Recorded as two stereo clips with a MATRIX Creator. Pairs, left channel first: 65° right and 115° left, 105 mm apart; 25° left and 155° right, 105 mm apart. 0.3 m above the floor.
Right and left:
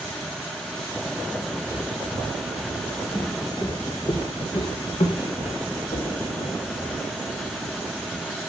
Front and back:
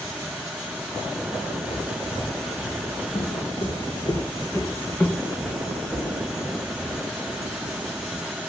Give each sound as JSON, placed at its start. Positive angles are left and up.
{"t": 1.6, "sound": "footsteps", "azimuth_deg": 50, "distance_m": 3.0}